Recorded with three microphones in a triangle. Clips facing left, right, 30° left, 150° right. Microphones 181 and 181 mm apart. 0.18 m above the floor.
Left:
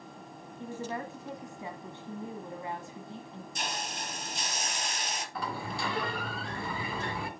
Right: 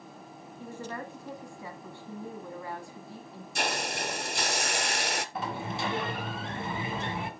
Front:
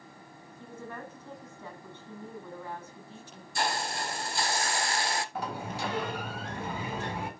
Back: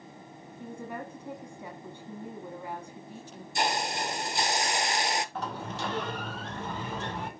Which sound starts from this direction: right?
A hiss, at 3.5 s.